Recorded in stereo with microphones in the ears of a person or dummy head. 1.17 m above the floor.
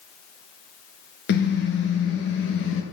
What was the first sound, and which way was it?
A car horn, 60° left (ahead or behind).